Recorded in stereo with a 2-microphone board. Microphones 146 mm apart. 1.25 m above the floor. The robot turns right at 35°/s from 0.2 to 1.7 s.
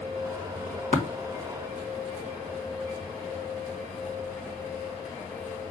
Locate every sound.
0.9 s tapping: 65° left (ahead or behind), 1.6 m; by 1.0 s 60° left (ahead or behind), 1.6 m